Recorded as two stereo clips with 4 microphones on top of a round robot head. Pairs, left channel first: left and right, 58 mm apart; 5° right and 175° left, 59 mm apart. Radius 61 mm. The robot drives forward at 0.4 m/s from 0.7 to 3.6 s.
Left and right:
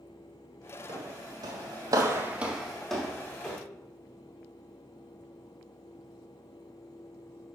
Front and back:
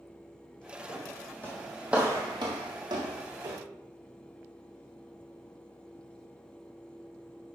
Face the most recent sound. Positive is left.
turn(degrees=160)